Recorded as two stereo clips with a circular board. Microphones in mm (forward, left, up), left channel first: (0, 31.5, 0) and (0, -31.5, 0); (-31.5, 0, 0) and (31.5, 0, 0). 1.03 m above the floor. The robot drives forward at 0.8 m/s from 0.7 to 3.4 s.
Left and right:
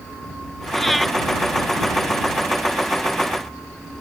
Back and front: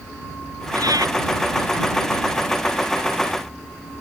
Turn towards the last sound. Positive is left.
turn(degrees=0)